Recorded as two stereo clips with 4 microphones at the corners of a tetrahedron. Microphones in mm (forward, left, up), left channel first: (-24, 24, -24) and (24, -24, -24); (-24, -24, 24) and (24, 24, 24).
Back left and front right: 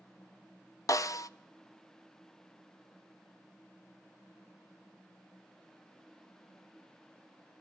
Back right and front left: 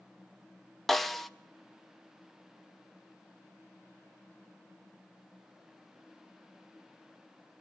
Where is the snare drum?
135° left, 0.8 m.